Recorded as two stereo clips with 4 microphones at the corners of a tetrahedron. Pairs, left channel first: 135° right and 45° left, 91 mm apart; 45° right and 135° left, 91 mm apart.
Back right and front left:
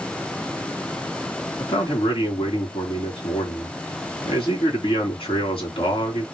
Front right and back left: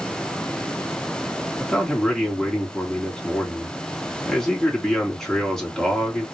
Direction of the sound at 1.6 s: 130° right.